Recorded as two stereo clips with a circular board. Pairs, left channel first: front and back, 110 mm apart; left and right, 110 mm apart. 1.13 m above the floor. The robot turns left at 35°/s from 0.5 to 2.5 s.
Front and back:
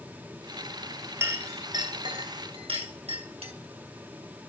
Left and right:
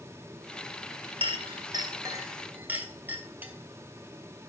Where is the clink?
115° right, 3 m; by 3.5 s 160° right, 3 m.